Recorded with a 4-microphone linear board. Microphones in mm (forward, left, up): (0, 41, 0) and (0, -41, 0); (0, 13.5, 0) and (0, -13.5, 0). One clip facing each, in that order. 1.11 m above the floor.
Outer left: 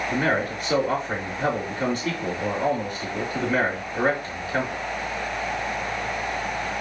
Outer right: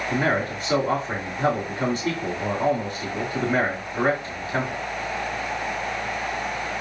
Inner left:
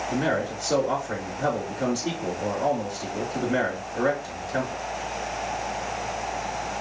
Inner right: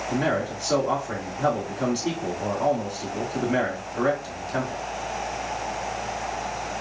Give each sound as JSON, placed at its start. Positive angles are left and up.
{"t": 0.1, "sound": "a man speaking", "side_deg": -30, "distance_m": 2.5}